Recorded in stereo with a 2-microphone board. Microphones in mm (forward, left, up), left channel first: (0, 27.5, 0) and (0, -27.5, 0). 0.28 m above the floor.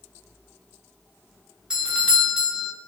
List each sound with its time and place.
1.7 s a doorbell: 15° right (ahead or behind), 1.6 m